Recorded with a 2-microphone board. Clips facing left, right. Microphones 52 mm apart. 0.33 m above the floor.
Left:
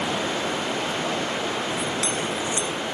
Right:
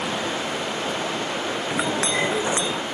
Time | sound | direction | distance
1.7 | a clink | 80° right | ?